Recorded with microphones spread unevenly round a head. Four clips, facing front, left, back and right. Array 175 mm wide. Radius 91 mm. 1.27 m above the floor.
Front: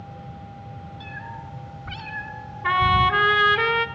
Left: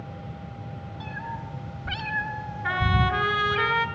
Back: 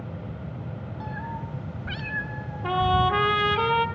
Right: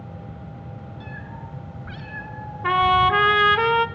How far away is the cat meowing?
About 1.4 m.